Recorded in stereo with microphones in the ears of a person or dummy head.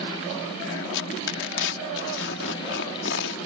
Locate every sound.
0.9 s tearing paper: 60° left (ahead or behind)